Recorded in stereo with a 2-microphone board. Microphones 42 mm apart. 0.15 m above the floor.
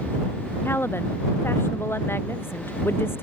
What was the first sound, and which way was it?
A woman speaking, 65° left (ahead or behind).